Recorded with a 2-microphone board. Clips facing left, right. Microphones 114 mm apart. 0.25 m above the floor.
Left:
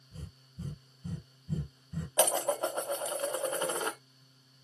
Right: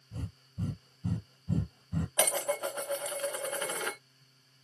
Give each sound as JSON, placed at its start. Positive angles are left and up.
{"t": 0.1, "sound": "breathing", "side_deg": -65, "distance_m": 0.8}
{"t": 2.2, "sound": "dishes clattering", "side_deg": 25, "distance_m": 0.8}